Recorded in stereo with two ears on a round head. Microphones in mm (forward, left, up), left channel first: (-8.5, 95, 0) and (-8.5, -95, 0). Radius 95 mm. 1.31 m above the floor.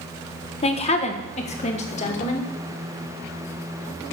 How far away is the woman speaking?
About 1.2 m.